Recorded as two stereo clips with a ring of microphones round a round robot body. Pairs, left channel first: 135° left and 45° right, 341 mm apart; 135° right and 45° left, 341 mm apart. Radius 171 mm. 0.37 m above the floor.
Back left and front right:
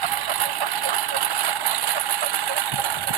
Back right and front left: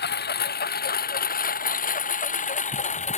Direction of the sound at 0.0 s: 70° right.